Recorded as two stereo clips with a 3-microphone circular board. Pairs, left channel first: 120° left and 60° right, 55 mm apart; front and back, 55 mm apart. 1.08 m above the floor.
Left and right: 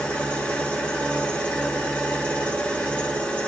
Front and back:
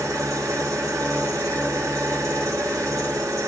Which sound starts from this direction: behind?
An engine running, at 0.0 s.